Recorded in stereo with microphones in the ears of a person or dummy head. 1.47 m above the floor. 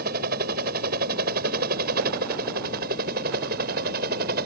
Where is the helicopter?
60° right (ahead or behind).